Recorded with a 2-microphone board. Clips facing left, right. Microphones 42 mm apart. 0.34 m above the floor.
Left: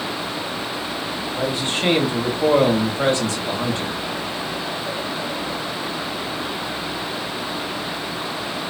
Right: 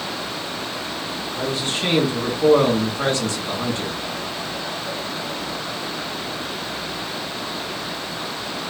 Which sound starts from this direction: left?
A man speaking, at 1.3 s.